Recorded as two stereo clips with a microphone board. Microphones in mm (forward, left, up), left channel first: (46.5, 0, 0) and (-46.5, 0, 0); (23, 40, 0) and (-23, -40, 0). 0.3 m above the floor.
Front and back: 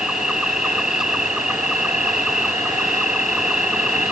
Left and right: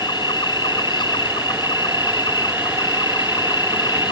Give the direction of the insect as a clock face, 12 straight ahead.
9 o'clock.